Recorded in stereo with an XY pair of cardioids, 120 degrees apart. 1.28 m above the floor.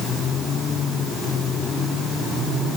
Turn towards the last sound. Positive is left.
No sound to turn to.